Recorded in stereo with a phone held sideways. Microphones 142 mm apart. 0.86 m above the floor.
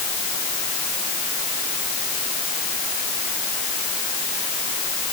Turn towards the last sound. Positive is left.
No sound to turn to.